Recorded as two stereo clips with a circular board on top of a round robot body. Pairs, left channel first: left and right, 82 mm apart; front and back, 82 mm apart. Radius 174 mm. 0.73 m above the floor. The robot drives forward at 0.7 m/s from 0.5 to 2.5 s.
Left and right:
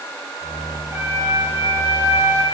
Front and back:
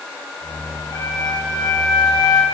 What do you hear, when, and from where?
0.9 s a flute: 35° right, 9.5 m; by 2.4 s 40° right, 8.5 m